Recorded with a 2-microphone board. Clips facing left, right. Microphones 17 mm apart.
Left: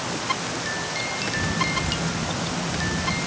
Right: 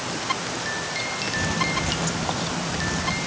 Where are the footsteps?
45° right (ahead or behind), 0.5 m; by 3.2 s 40° right (ahead or behind), 1.1 m.